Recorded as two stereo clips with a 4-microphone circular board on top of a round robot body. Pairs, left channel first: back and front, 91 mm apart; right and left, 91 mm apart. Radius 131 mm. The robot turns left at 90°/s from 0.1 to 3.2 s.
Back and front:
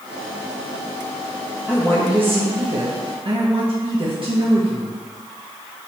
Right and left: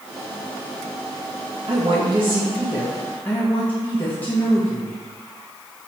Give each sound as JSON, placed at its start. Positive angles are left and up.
{"t": 1.7, "sound": "a woman speaking", "azimuth_deg": 120, "distance_m": 1.7}